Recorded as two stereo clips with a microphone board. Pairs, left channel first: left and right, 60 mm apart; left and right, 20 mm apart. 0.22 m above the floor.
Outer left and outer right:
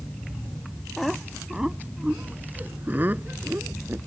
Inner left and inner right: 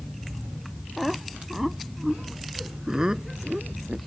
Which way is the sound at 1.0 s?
5° left (ahead or behind).